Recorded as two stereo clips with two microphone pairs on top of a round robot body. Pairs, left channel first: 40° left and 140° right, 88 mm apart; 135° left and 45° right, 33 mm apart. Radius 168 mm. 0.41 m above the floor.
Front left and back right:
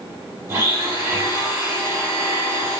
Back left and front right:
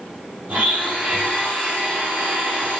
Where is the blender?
75° right, 4 m.